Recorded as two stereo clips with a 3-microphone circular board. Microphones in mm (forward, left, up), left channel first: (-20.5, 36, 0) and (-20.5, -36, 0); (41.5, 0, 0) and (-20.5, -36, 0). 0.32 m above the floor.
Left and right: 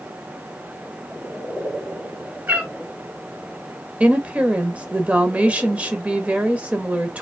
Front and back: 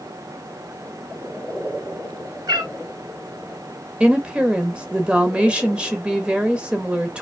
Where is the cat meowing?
155° right, 1.6 m.